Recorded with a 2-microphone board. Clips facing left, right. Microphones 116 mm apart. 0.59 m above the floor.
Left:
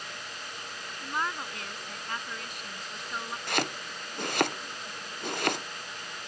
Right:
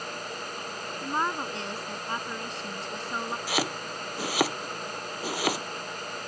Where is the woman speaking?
30° right (ahead or behind).